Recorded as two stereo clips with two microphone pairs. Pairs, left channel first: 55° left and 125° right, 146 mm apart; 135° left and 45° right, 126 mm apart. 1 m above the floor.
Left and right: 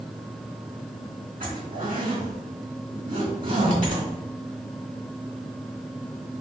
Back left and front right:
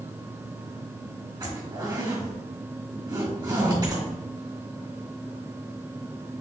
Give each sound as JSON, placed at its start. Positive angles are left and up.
{"t": 1.4, "sound": "a zipper", "azimuth_deg": -105, "distance_m": 1.7}